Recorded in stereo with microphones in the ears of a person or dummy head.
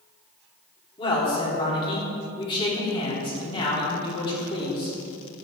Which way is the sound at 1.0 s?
25° left (ahead or behind).